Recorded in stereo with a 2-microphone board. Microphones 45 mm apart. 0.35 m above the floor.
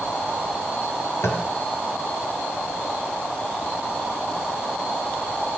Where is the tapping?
85° left, 2.5 m.